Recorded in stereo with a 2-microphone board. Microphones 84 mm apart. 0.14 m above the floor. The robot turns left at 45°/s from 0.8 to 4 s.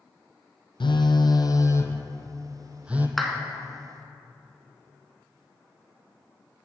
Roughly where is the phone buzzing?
Left.